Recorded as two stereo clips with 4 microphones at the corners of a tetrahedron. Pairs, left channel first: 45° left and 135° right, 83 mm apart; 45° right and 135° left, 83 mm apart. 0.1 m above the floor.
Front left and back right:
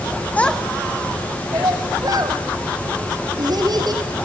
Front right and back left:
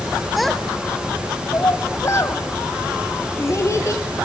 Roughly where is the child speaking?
Ahead left.